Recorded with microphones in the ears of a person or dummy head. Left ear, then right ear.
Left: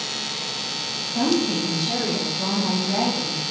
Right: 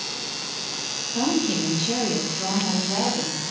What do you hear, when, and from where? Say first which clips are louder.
1.1 s a woman speaking: left 2 dB; 35° right (ahead or behind), 1.5 m; by 3.4 s 15° left (ahead or behind), 1.8 m